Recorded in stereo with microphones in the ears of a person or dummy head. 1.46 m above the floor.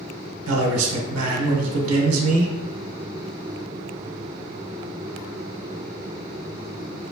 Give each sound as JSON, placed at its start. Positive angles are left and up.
{"t": 0.5, "sound": "a man speaking", "side_deg": -85, "distance_m": 1.3}